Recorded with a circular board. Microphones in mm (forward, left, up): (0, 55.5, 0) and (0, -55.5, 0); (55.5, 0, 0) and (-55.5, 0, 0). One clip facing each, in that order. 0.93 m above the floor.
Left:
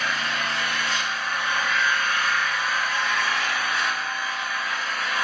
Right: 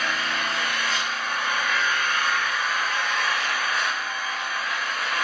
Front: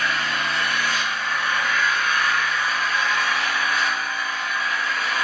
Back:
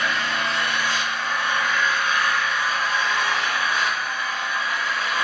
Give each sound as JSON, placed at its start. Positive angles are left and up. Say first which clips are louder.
{"t": 0.0, "sound": "an engine running", "louder": "even, even", "azimuth_deg": -120, "distance_m": 1.1}